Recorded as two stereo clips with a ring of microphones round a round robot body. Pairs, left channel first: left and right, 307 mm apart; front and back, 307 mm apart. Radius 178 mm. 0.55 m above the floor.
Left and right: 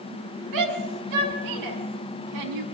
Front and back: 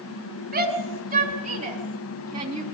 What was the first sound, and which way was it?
A shout, 115° right.